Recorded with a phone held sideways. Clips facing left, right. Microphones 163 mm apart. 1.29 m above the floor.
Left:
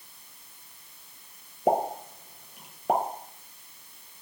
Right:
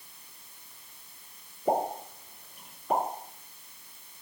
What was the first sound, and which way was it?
A pop, 80° left.